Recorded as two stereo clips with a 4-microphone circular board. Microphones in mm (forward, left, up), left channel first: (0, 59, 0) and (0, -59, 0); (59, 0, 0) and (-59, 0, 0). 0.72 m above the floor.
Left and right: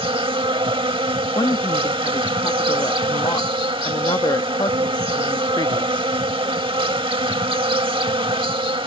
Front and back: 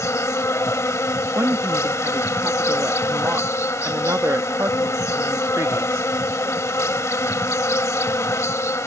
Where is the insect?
60° right.